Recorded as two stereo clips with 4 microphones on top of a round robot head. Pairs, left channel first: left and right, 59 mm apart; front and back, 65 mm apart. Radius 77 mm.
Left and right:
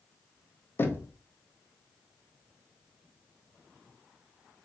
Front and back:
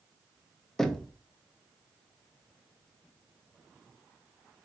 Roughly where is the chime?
I don't hear a chime.